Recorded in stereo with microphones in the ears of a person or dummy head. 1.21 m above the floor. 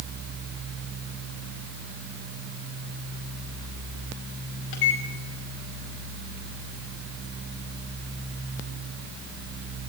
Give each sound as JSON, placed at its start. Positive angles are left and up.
{"t": 4.7, "sound": "a microwave", "side_deg": 70, "distance_m": 5.0}